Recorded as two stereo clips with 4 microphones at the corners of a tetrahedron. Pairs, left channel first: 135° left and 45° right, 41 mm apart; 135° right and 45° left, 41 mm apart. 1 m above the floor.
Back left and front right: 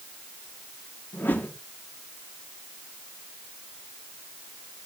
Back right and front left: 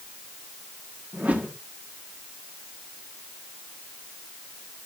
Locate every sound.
1.1 s a whoosh: 95° left, 2 m